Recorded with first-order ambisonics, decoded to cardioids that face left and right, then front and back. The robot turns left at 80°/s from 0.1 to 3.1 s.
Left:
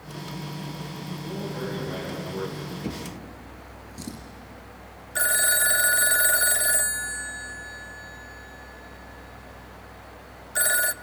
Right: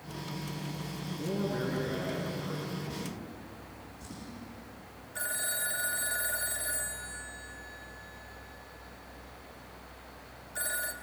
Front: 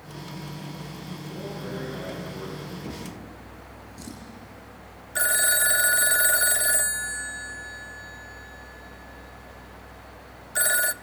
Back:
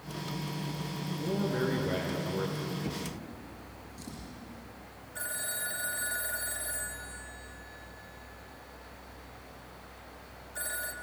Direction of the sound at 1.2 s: 125° right.